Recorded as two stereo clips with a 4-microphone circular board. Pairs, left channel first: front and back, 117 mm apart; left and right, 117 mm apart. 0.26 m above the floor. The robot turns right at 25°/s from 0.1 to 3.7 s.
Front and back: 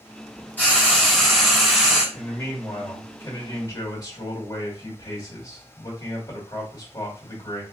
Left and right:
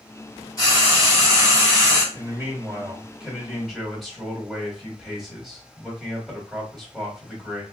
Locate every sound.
0.6 s frying: 65° left, 1.9 m; by 2.0 s 105° left, 1.9 m
2.1 s a man speaking: 40° right, 1.4 m; by 7.6 s straight ahead, 1.4 m